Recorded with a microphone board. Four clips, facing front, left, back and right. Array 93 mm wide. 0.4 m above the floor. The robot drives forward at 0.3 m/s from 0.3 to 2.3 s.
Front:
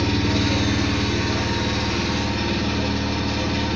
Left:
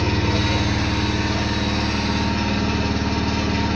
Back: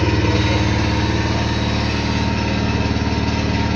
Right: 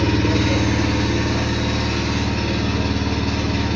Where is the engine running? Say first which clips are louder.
Right 3 dB, back 3 dB; 170° right, 0.8 m; by 3.8 s 175° right, 1.3 m.